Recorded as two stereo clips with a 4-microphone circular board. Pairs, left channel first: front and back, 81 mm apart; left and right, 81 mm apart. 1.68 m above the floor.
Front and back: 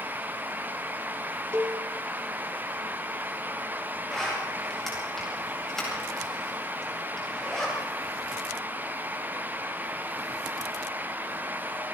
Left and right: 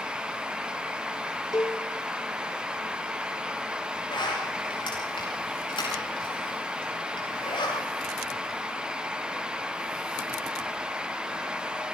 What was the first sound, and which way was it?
A cowbell, 125° left.